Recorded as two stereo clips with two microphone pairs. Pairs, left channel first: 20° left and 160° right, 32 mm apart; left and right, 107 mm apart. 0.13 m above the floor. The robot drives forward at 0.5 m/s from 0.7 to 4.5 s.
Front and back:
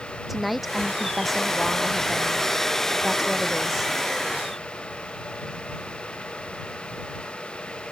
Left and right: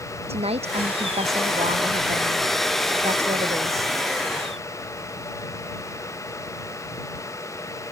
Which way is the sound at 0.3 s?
70° right.